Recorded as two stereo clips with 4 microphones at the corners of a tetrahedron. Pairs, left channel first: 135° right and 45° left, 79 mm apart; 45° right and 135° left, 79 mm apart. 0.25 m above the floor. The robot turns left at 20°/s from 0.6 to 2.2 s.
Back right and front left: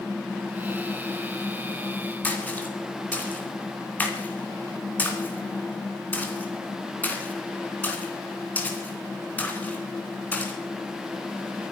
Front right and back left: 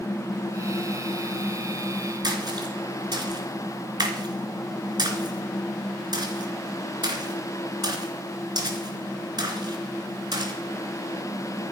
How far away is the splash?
About 2.5 m.